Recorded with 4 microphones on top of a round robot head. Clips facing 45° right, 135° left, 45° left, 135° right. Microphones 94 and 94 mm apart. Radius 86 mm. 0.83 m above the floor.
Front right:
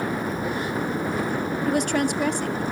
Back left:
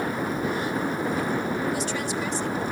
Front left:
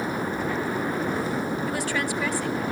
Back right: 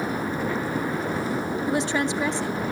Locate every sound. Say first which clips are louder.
1.7 s a woman speaking: front right 5 dB, back right 3 dB; 70° right, 2 m